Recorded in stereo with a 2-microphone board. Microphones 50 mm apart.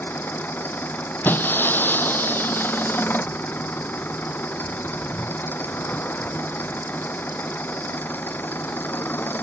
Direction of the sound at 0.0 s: 40° left (ahead or behind).